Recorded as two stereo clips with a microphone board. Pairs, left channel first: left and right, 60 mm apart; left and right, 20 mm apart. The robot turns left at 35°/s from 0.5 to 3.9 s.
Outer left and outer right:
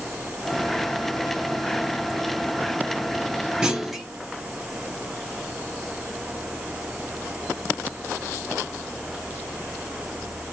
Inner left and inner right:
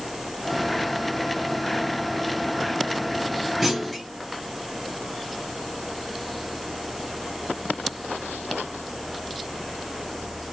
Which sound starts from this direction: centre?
A clunk, at 3.6 s.